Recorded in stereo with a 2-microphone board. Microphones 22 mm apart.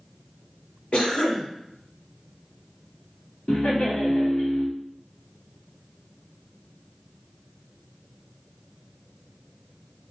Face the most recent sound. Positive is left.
turn(degrees=70)  # may be behind; listen again after turning